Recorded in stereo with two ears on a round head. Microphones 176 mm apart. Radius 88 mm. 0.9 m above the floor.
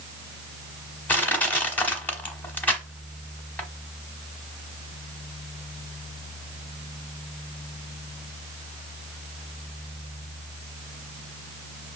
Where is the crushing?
10° left (ahead or behind), 1.0 m.